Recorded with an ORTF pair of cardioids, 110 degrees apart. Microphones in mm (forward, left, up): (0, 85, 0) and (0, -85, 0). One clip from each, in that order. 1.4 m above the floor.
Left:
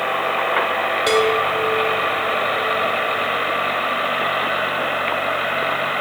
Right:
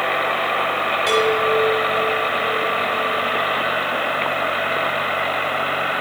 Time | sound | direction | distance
1.1 | a chime | 40° left | 3 m